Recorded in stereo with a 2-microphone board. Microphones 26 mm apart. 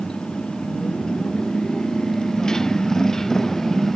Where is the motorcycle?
35° left (ahead or behind); by 4.0 s 15° left (ahead or behind).